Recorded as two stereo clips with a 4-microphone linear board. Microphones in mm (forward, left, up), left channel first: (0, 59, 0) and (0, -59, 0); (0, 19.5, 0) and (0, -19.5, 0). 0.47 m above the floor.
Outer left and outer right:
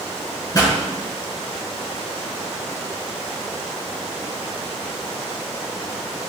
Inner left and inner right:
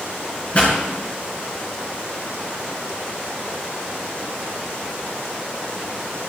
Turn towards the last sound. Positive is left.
turn(degrees=30)  # may be behind; listen again after turning